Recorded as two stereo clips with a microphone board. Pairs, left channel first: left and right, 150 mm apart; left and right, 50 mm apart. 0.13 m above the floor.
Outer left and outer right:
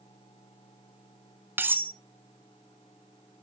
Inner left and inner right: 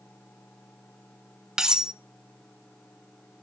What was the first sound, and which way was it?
Cutlery clinking, 15° right (ahead or behind).